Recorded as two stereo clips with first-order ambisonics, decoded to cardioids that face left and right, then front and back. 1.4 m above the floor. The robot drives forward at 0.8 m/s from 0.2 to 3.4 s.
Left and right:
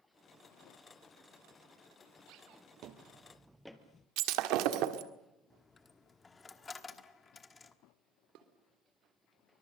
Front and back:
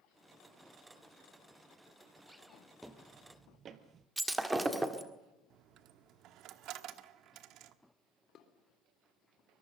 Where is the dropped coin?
165° left, 1.2 m.